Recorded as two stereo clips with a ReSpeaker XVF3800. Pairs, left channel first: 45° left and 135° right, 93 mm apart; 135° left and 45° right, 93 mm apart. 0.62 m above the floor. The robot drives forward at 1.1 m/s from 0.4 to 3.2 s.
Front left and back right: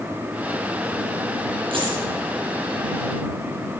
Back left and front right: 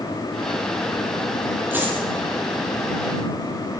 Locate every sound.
1.7 s a dropped coin: 115° right, 9 m